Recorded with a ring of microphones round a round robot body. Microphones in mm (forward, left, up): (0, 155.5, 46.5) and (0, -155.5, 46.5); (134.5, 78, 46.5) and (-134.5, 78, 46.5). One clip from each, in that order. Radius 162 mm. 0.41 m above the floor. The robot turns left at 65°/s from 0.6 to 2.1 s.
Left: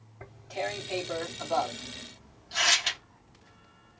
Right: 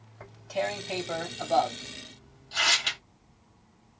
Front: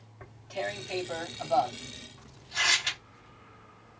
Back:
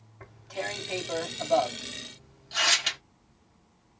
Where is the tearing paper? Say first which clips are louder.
Right 3 dB, even; 100° right, 3 m; by 3.0 s 160° left, 3 m.